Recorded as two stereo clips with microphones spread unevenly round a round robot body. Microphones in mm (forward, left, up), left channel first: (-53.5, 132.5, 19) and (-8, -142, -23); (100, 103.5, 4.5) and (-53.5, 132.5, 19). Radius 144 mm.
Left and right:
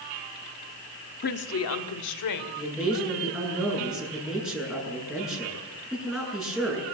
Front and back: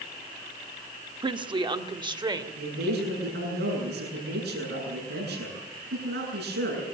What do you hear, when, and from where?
1.2 s a woman speaking: 135° left, 1.3 m; by 2.5 s 105° left, 2.5 m
2.6 s a man speaking: 170° right, 8 m